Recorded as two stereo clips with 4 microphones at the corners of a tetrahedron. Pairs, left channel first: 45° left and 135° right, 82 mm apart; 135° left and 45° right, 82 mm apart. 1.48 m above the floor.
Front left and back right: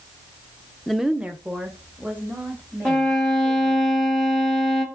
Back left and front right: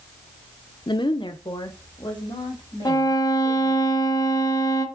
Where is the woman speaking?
130° left, 0.6 m; by 3.9 s 160° left, 5 m.